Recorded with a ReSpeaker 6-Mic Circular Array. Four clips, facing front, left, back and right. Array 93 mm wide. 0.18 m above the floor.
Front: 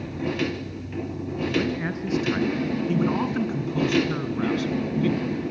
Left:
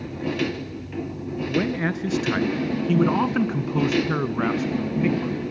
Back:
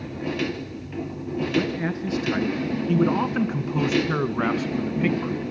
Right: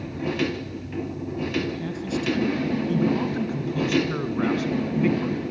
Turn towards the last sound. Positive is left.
turn(degrees=-175)